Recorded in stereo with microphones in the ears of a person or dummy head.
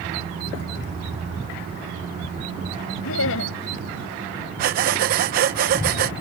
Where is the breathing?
45° right (ahead or behind).